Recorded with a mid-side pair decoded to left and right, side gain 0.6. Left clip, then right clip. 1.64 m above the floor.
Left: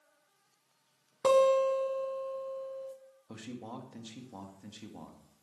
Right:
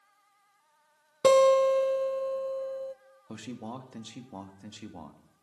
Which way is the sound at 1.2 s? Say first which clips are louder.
Right 4 dB; 40° right.